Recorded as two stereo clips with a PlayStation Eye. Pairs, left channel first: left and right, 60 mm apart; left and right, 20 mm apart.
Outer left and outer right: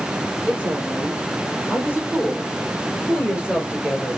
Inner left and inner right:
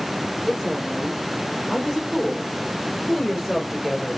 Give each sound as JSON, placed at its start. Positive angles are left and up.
{"t": 0.5, "sound": "a woman speaking", "side_deg": -25, "distance_m": 5.5}